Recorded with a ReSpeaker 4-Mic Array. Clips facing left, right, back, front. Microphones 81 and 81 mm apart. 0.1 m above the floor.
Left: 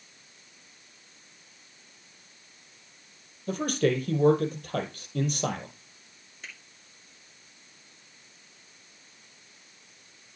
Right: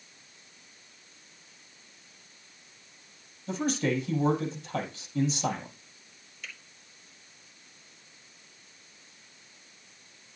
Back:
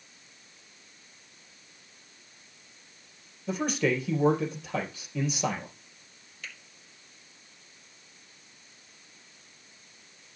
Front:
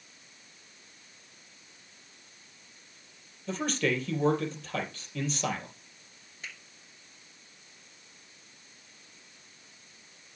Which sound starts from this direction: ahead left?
A finger snap, at 6.4 s.